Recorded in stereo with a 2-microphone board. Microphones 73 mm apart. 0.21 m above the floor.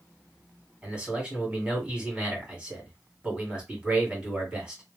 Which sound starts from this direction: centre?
A man speaking, at 0.8 s.